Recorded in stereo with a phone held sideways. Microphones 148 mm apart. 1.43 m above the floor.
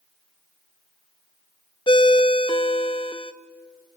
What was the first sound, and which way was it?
A ringtone, 35° left (ahead or behind).